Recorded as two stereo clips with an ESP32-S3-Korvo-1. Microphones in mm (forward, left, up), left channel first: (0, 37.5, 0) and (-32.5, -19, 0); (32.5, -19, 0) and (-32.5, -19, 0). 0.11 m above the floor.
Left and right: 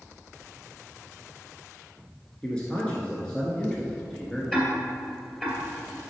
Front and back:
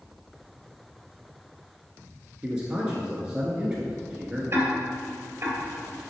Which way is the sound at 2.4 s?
120° left.